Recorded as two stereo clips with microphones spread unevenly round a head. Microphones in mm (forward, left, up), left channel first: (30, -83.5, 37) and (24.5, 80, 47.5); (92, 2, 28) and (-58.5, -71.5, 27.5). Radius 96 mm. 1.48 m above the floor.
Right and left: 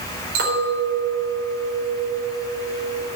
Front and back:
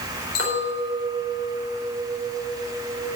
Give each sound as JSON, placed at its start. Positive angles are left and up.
{"t": 0.3, "sound": "a clink", "azimuth_deg": 65, "distance_m": 4.5}